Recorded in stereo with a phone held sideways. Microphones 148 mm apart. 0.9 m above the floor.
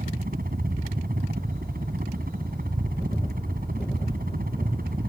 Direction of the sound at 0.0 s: 80° right.